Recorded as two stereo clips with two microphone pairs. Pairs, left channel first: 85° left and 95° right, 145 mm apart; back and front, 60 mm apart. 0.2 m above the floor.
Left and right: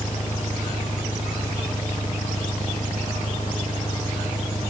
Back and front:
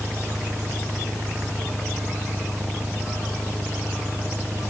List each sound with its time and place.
0.0 s an engine running: 55° left